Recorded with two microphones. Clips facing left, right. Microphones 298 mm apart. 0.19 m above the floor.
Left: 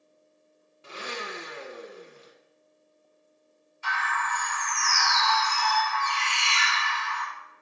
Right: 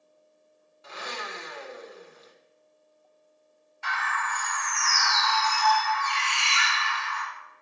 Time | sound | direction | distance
0.8 | a blender | 30° left (ahead or behind) | 1.0 m
3.8 | a bird | 70° right (ahead or behind) | 2.5 m